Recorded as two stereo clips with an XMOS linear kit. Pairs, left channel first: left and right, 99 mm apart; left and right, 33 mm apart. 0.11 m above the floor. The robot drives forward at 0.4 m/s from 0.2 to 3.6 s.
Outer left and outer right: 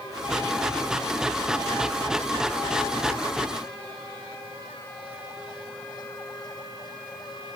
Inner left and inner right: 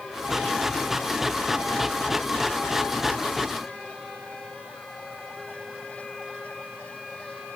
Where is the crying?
No crying in this recording.